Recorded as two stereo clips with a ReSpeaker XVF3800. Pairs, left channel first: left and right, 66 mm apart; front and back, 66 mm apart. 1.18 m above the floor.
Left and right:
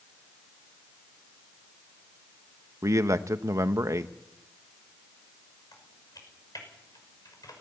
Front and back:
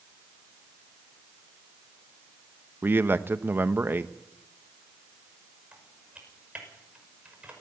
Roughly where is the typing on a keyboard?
Left.